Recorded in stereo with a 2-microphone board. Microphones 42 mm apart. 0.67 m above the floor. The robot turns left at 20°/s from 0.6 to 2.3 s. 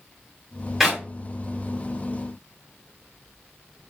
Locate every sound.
0.8 s a clap: 5° right (ahead or behind), 1.5 m; by 1.0 s 10° right (ahead or behind), 1.5 m